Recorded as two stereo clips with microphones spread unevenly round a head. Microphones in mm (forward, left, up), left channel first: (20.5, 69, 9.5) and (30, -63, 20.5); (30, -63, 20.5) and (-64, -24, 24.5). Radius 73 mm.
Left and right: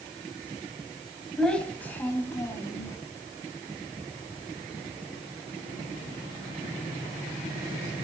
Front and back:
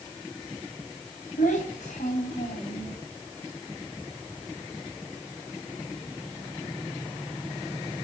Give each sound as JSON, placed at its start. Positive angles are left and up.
{"t": 1.4, "sound": "a child speaking", "azimuth_deg": 10, "distance_m": 4.5}